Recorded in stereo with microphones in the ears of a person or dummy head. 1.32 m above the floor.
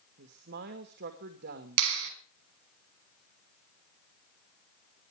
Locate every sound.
0.2 s a woman speaking: 60° right (ahead or behind), 2.5 m
1.8 s a clap: 75° right (ahead or behind), 4.5 m